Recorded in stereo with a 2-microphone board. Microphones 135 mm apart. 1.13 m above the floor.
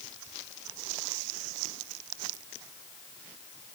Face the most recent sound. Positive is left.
No sound to turn to.